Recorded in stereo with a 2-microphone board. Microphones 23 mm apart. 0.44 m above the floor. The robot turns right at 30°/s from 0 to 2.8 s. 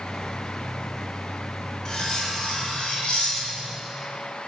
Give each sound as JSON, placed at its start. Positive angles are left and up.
{"t": 1.9, "sound": "cutlery clinking", "side_deg": 30, "distance_m": 1.2}